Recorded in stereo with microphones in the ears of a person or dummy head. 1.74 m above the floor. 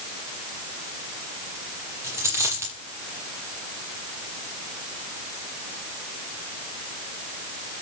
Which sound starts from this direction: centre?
A dropped coin, at 2.0 s.